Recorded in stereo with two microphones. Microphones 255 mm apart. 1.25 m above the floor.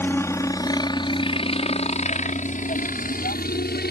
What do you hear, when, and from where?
0.0 s a helicopter: 10° left (ahead or behind); by 3.9 s 40° left (ahead or behind)